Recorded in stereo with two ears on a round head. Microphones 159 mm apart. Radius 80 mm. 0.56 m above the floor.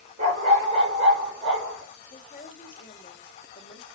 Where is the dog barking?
40° right (ahead or behind), 2.5 m; by 1.8 s 30° right (ahead or behind), 4 m.